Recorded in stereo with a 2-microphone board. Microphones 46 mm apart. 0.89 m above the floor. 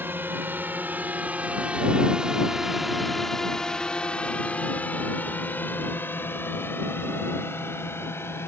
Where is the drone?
50° right (ahead or behind); by 8.5 s 65° left (ahead or behind).